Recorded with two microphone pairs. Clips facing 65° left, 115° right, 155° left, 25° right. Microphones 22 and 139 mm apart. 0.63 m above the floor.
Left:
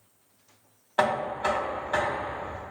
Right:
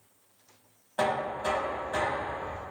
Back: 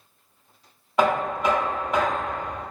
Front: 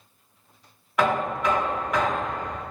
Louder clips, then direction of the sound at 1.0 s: Left 3 dB, back 2 dB; 110° left.